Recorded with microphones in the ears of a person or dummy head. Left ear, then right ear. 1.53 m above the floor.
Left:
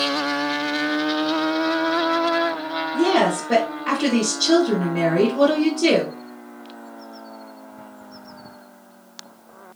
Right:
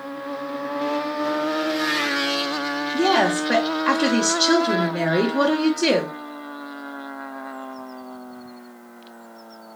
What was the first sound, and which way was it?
A woman speaking, 25° right (ahead or behind).